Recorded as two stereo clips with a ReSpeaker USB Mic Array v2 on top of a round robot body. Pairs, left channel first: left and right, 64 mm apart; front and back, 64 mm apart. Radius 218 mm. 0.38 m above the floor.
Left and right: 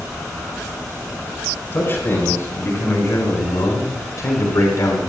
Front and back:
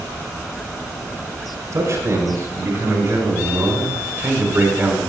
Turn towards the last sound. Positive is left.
turn(degrees=115)